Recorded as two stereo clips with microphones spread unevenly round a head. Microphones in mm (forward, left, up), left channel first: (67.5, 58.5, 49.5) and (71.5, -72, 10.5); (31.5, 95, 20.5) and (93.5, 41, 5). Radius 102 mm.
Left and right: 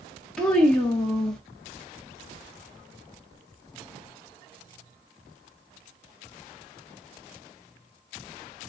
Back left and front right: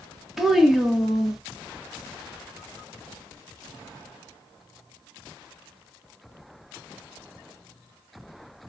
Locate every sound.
0.4 s a child speaking: 70° left, 0.7 m